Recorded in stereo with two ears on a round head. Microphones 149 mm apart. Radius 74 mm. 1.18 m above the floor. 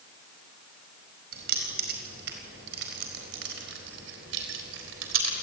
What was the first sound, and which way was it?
Keys jangling, 60° right (ahead or behind).